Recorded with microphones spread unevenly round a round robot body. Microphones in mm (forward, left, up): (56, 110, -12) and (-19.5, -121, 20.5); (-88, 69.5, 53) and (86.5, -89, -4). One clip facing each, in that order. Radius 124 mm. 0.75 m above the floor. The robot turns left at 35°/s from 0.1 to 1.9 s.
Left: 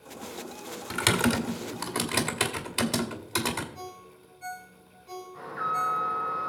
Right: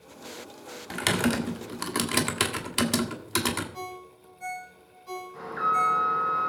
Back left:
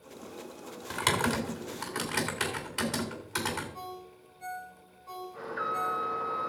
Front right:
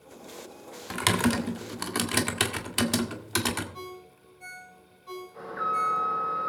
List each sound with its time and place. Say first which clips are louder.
0.9 s typing on a keyboard: even, front right 5 dB; straight ahead, 1.6 m; by 3.6 s 35° right, 1.6 m
3.7 s a ringtone: right 3 dB, front right 2 dB; 115° right, 4.5 m
5.3 s an alarm: right 6 dB, back left 4 dB; 140° right, 5 m